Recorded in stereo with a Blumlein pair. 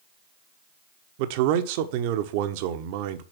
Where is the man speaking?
50° right, 1.0 m.